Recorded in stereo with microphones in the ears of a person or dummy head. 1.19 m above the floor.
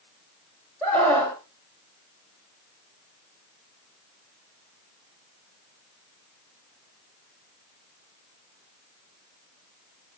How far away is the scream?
About 1.6 m.